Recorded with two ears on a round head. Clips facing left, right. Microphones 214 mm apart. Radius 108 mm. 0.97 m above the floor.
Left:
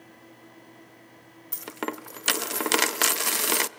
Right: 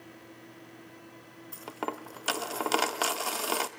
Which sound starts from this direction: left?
A dropped coin, at 1.5 s.